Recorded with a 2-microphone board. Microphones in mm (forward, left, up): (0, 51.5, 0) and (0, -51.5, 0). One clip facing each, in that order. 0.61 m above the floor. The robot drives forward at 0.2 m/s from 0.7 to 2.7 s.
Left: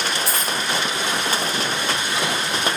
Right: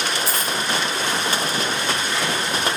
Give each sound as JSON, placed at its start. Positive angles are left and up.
{"t": 0.3, "sound": "a dropped coin", "side_deg": 70, "distance_m": 1.3}